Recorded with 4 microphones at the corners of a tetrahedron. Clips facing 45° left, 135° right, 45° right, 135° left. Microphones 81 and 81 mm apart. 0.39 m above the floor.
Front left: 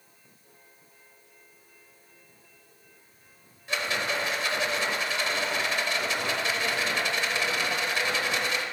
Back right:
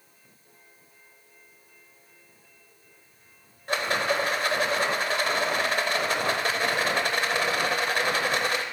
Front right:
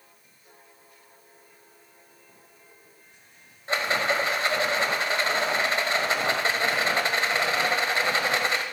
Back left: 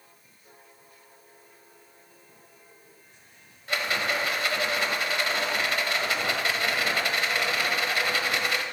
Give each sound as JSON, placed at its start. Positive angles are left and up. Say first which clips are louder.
{"t": 3.7, "sound": "a rattle", "louder": "back right 4 dB, front right 3 dB", "azimuth_deg": -100, "distance_m": 0.8}